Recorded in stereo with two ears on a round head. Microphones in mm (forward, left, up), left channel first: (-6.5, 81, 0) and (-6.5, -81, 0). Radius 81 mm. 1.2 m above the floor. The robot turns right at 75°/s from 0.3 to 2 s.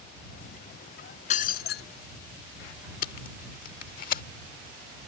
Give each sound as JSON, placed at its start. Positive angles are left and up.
{"t": 1.3, "sound": "breaking glass", "azimuth_deg": 45}
{"t": 3.0, "sound": "tape being pulled", "side_deg": 50}